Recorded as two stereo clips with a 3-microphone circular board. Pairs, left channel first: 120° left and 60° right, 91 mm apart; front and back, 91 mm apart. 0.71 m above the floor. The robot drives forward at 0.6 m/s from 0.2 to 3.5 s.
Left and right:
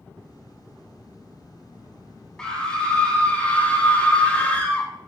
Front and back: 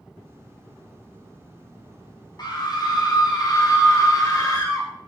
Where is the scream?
40° left, 4.5 m; by 4.9 s 45° left, 4 m.